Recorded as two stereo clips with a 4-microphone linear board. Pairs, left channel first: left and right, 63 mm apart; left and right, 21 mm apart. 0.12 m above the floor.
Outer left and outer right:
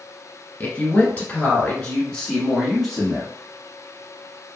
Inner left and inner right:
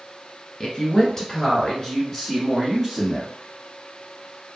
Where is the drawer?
I don't hear a drawer.